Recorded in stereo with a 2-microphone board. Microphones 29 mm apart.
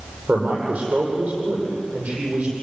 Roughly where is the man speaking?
Right.